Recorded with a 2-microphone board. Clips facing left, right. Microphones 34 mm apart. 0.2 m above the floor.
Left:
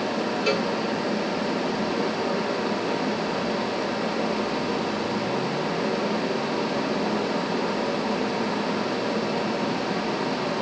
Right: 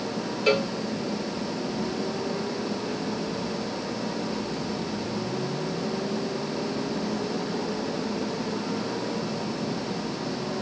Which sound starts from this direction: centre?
A cowbell, at 0.5 s.